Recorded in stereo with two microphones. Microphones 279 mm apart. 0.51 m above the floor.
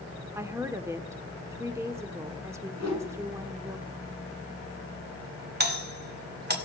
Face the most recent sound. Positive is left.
turn(degrees=-35)  # may be behind; listen again after turning